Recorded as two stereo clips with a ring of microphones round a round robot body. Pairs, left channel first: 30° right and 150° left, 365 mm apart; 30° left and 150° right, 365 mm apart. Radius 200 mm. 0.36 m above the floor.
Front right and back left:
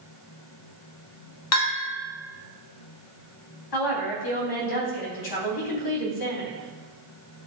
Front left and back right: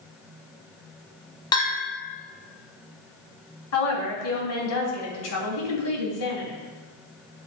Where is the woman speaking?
15° right, 3 m.